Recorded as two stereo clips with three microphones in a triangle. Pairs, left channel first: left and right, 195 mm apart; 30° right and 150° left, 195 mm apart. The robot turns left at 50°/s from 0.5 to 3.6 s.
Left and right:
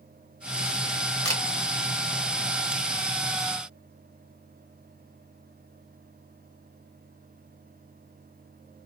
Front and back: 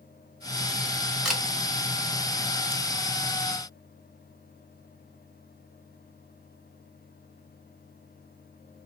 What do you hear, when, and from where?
1.2 s a camera shutter: 65° left, 1.0 m; by 1.4 s 60° left, 1.0 m